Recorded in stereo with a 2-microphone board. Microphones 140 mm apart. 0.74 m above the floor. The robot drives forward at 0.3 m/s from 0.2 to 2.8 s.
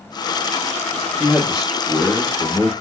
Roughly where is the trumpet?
No trumpet in this recording.